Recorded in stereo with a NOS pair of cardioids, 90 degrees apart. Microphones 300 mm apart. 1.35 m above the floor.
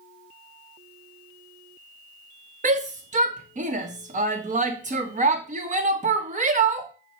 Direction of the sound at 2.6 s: 25° right.